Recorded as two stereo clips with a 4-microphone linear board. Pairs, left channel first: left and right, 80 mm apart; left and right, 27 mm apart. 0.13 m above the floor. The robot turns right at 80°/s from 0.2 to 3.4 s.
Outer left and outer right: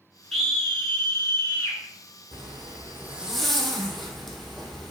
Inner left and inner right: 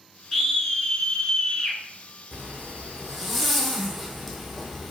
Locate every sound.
0.3 s a scream: centre (ahead or behind), 1.2 m; by 1.8 s 25° left (ahead or behind), 1.2 m
2.3 s a zipper: 85° right, 1.2 m; by 4.9 s straight ahead, 1.2 m